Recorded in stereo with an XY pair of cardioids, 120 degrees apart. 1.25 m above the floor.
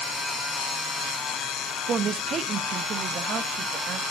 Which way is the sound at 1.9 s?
35° right.